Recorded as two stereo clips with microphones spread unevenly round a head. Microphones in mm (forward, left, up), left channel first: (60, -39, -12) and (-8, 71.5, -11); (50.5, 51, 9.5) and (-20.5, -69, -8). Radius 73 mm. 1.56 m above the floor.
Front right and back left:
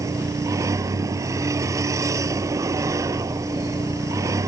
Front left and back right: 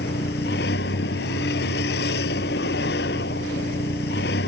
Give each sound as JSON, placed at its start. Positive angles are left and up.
{"t": 0.0, "sound": "a vehicle", "azimuth_deg": 55}